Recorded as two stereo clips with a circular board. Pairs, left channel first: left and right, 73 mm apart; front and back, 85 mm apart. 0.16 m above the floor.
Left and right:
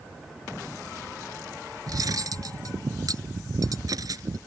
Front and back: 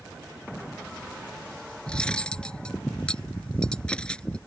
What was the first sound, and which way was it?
Cutlery clinking, 80° right.